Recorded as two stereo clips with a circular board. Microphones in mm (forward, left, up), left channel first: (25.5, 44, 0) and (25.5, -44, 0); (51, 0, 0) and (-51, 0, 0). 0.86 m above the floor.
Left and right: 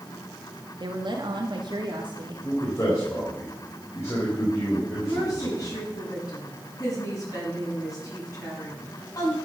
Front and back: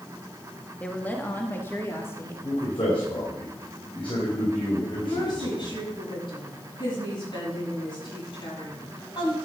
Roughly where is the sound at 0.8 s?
Right.